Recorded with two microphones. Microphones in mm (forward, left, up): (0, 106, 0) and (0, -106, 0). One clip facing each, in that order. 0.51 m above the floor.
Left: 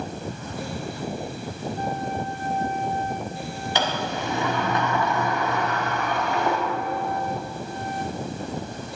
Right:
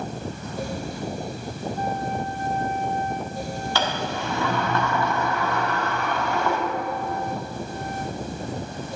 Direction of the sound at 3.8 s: 20° left (ahead or behind).